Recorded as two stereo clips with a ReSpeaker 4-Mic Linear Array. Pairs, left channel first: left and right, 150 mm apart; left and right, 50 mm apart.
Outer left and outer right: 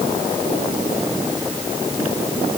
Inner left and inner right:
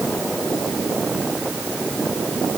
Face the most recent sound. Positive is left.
No sound to turn to.